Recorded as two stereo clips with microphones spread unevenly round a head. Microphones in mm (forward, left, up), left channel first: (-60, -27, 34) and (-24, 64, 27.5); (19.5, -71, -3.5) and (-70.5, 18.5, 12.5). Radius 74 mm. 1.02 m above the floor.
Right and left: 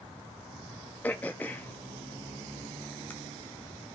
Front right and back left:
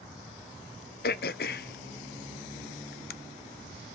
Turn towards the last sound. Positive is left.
turn(degrees=-35)